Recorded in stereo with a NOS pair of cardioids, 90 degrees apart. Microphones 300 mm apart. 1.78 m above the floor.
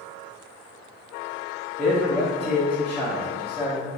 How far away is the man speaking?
About 0.8 m.